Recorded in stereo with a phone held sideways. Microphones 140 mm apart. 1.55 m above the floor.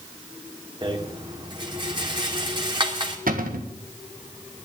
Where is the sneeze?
No sneeze in this recording.